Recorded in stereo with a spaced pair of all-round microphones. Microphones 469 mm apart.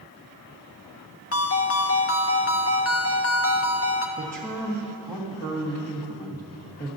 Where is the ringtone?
30° left (ahead or behind), 0.6 m.